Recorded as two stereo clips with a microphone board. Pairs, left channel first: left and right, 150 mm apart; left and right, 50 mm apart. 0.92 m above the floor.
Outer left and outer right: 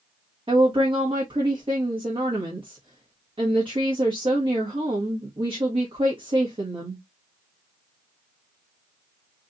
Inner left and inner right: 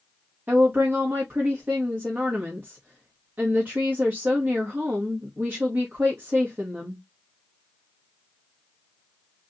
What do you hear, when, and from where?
0.5 s a woman speaking: 35° right (ahead or behind), 1.4 m